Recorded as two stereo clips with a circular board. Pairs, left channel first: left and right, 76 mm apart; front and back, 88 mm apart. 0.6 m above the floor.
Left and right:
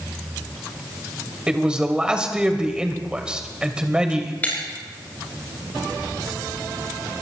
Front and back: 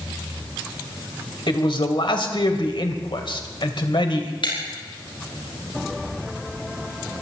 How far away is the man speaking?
About 2.5 m.